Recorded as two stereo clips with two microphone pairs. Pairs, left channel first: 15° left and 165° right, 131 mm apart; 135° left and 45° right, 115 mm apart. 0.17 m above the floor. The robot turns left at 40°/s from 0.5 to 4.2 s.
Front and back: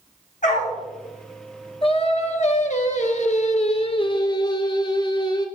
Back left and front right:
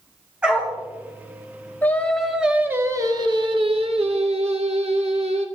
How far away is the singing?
About 0.8 m.